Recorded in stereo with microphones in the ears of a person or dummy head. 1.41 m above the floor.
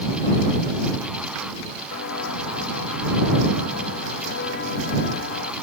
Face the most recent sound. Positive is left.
turn(degrees=65)  # may be behind; listen again after turning